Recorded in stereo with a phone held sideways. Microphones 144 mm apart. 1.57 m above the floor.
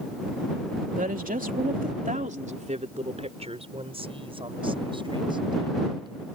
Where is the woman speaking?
75° right (ahead or behind); by 6.2 s 30° right (ahead or behind).